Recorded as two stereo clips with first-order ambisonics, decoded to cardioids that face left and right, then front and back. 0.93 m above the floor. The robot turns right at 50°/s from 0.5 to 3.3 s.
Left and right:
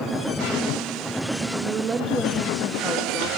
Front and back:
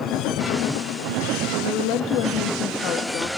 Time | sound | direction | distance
1.6 | a woman speaking | 35° right | 1.4 m